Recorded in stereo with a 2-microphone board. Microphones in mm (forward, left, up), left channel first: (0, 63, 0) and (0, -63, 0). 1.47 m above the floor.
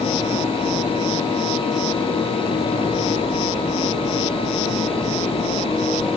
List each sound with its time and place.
Only background noise.